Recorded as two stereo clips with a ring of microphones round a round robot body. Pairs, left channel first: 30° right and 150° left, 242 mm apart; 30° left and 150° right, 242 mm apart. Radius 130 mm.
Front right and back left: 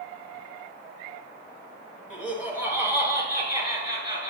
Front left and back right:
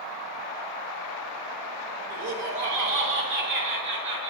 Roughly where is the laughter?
Behind right.